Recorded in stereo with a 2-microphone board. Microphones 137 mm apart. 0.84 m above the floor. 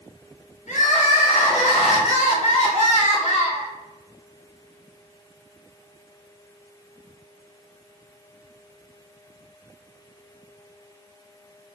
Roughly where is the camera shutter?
No camera shutter in this recording.